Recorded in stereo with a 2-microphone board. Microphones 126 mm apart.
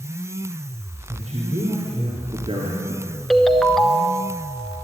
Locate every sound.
1.1 s a man speaking: 60° right (ahead or behind), 3 m; by 3.0 s 40° right (ahead or behind), 2 m
3.3 s a ringtone: centre (ahead or behind), 0.8 m